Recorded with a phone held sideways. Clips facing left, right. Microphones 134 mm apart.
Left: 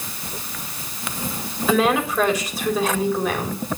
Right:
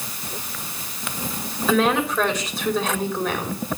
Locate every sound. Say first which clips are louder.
1.7 s a woman speaking: left 1 dB; centre (ahead or behind), 4 m